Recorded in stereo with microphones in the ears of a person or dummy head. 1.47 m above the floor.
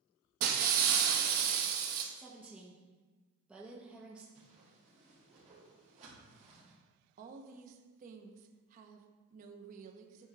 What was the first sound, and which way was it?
Breaking glass, 50° right (ahead or behind).